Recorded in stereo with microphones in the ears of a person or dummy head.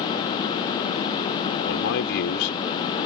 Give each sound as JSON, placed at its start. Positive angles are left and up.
{"t": 1.6, "sound": "a man speaking", "side_deg": 65}